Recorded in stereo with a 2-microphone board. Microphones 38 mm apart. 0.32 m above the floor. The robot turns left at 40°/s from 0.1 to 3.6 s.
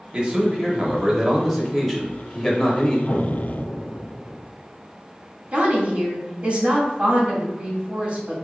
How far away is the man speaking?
About 1.1 m.